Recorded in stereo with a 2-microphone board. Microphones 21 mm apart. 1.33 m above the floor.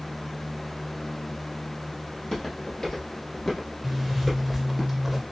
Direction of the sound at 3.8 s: 5° right (ahead or behind).